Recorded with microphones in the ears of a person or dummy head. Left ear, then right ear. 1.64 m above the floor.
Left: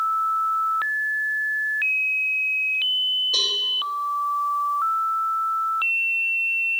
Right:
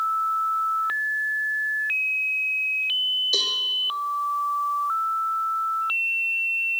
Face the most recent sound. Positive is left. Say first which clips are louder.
# left 1 dB
turn(degrees=-75)  # may be behind; listen again after turning